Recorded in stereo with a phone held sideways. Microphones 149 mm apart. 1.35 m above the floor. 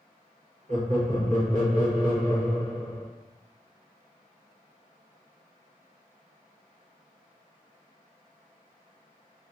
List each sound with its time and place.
0.7 s laughter: 55° right (ahead or behind), 1.6 m